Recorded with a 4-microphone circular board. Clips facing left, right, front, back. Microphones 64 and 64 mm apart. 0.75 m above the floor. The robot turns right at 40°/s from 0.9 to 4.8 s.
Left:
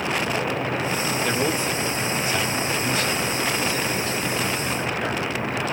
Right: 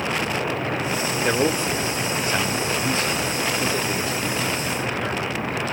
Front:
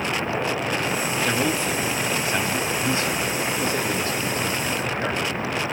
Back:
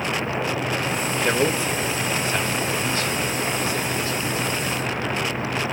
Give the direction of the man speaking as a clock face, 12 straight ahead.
4 o'clock.